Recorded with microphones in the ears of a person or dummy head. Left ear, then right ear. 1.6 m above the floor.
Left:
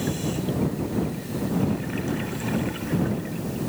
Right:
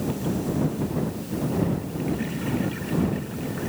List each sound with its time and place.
Only background noise.